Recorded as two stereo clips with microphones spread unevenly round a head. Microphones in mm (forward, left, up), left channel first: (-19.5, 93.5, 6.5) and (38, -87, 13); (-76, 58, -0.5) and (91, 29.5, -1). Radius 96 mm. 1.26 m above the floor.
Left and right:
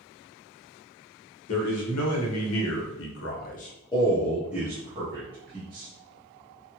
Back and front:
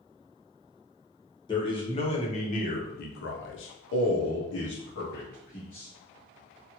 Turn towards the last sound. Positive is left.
turn(degrees=-130)